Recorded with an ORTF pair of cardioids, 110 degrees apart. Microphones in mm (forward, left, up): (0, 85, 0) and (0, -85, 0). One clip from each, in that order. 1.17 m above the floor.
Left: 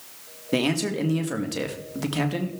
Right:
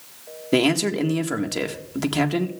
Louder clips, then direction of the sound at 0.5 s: Right 5 dB; 25° right.